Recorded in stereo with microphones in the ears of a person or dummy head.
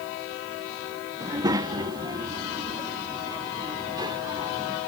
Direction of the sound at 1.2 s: 25° right (ahead or behind).